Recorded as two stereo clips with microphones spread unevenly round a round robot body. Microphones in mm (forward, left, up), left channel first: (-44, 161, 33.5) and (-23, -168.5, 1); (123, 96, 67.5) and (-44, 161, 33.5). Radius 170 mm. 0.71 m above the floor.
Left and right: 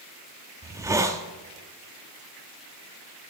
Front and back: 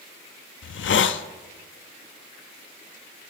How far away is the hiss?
About 0.6 m.